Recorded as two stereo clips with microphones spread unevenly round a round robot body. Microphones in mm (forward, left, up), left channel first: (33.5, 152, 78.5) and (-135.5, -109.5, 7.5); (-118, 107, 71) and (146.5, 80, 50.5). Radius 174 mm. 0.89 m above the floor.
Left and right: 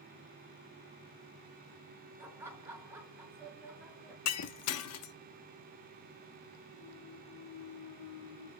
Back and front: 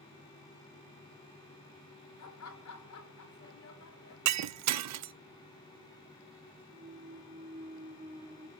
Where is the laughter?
160° left, 4 m.